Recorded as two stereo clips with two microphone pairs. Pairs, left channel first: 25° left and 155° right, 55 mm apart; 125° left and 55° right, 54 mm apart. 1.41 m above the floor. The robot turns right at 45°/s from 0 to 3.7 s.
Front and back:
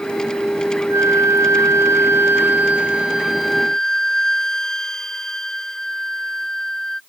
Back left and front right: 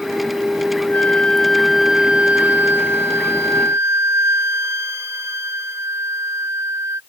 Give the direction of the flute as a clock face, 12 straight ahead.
6 o'clock.